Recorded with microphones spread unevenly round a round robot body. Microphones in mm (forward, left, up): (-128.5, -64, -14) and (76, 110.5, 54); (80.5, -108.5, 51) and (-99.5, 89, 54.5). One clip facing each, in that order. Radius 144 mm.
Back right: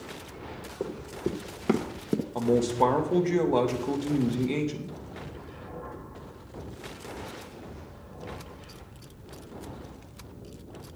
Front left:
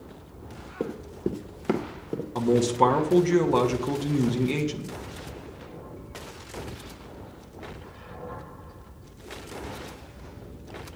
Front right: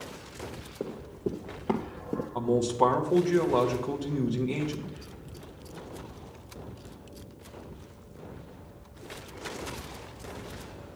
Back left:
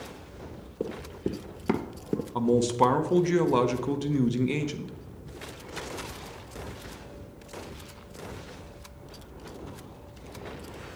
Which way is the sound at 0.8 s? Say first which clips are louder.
Front left 2 dB, back left 2 dB; 65° left.